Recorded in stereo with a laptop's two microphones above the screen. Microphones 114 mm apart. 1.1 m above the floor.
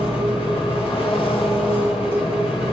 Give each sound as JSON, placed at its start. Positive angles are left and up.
{"t": 0.0, "sound": "an engine running", "side_deg": 55, "distance_m": 2.5}